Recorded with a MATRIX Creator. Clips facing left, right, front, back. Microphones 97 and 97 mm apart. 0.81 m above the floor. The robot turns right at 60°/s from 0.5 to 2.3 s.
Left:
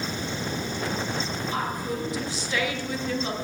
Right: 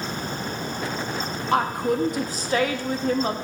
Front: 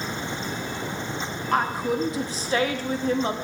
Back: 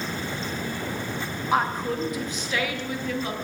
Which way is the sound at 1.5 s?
95° right.